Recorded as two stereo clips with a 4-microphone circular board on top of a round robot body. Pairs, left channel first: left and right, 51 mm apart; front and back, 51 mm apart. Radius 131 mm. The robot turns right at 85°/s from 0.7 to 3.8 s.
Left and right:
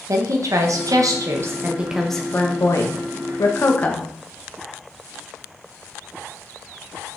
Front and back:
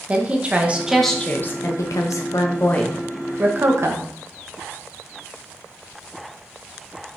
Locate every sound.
0.1 s a woman speaking: 115° right, 1.2 m; by 4.1 s 150° left, 1.2 m